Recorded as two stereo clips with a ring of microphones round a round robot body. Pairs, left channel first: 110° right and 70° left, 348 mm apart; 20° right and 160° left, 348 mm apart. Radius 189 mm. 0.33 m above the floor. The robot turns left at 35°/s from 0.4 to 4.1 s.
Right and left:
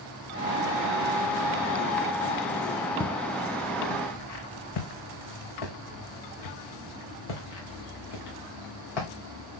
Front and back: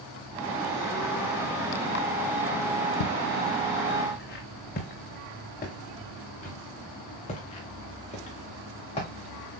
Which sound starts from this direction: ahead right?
Footsteps, at 3.0 s.